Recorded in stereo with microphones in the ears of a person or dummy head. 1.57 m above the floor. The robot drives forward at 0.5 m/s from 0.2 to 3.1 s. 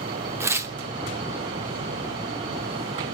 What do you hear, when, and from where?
0.4 s tearing paper: 15° right (ahead or behind), 0.8 m; by 0.8 s 20° right (ahead or behind), 0.7 m